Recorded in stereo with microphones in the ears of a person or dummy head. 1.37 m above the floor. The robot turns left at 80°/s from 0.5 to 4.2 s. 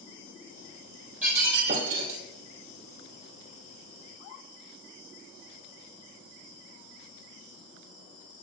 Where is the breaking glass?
10° right, 3 m; by 2.2 s 90° right, 3 m.